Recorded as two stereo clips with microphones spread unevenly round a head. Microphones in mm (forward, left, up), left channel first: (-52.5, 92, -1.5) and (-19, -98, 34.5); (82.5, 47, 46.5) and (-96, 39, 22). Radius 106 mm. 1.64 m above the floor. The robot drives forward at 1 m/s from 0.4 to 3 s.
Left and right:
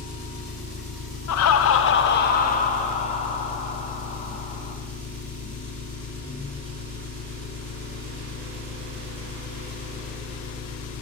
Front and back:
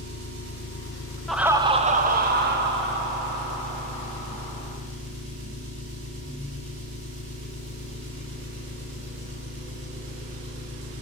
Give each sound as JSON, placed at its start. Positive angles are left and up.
{"t": 0.0, "sound": "an engine running", "azimuth_deg": -165, "distance_m": 2.5}
{"t": 1.3, "sound": "laughter", "azimuth_deg": 85, "distance_m": 0.8}